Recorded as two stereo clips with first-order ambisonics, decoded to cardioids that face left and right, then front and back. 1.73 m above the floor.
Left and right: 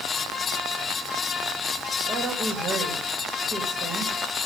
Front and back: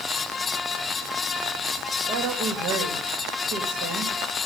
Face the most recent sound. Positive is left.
turn(degrees=-155)